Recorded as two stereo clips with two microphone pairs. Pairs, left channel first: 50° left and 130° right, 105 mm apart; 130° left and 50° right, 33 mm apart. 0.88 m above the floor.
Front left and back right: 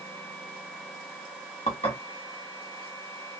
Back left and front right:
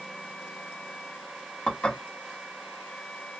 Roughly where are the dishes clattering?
Left.